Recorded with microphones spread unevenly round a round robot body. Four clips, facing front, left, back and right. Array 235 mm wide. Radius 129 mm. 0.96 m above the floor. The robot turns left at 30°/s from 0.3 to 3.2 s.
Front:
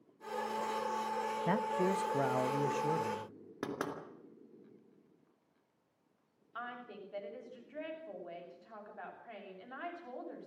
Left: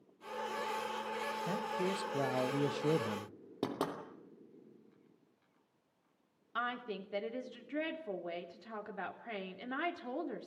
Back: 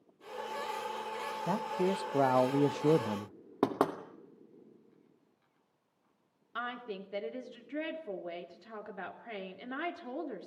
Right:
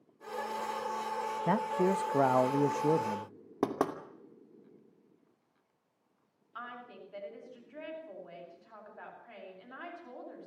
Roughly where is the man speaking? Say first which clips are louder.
Right 9 dB, back 1 dB; right.